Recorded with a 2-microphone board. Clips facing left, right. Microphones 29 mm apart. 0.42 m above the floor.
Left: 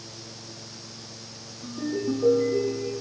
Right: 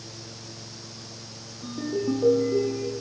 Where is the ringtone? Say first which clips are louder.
Right 1 dB; 35° right (ahead or behind), 8.5 m.